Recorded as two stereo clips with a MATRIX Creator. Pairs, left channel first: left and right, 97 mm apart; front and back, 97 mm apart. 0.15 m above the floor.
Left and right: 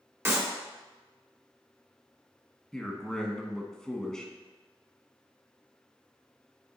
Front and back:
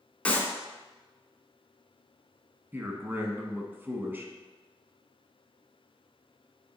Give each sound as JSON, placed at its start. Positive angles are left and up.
{"t": 0.2, "sound": "a clap", "azimuth_deg": -60, "distance_m": 1.5}
{"t": 2.7, "sound": "a man speaking", "azimuth_deg": 165, "distance_m": 1.1}